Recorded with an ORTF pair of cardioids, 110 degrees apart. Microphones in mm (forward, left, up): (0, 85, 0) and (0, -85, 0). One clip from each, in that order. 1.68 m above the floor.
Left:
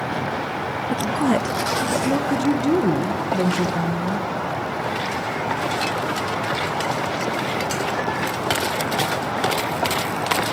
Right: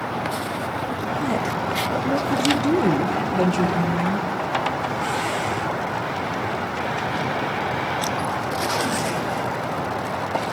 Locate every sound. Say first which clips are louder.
0.9 s a woman speaking: left 6 dB; 40° left, 1.1 m; by 4.3 s 5° right, 2.5 m